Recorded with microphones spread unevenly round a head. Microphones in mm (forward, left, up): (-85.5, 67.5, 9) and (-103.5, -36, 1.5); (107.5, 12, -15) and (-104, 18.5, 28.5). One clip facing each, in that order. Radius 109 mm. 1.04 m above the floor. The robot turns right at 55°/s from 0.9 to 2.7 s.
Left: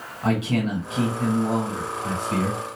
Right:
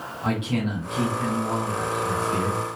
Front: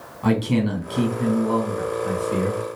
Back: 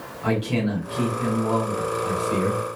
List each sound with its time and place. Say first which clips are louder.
0.2 s a man speaking: left 3 dB, front 3 dB; 10° left, 1.8 m; by 2.6 s 105° left, 1.8 m